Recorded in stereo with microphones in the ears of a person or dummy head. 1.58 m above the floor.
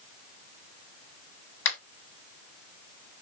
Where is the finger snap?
75° left (ahead or behind), 3.5 m.